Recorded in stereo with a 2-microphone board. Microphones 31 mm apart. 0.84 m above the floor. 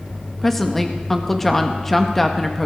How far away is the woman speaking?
About 1.1 m.